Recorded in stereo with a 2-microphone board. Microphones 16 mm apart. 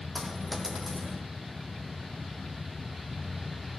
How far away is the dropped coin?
About 2.5 m.